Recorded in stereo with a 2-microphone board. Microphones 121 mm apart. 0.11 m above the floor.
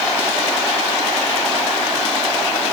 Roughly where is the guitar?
No guitar in this recording.